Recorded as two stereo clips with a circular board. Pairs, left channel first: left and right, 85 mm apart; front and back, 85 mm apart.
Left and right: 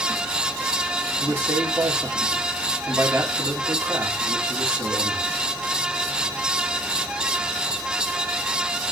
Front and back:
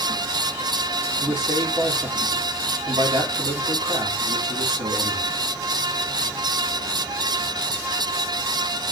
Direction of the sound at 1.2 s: 160° right.